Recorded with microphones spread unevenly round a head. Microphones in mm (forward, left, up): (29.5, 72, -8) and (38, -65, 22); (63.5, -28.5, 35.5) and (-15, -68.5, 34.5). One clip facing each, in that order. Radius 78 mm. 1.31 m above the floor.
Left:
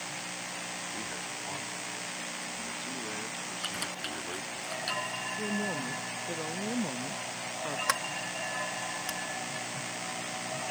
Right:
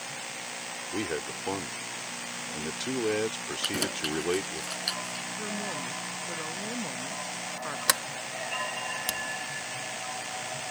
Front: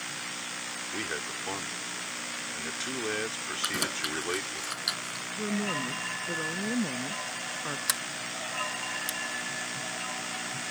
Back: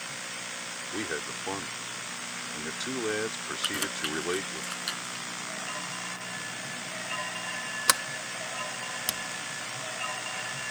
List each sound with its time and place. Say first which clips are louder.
0.9 s a man speaking: right 8 dB, back 2 dB; 75° right
3.6 s keys jangling: right 11 dB, front 1 dB; 45° right
5.4 s a woman speaking: left 3 dB, front 10 dB; 15° left
7.9 s a sliding door: even, back 6 dB; 135° right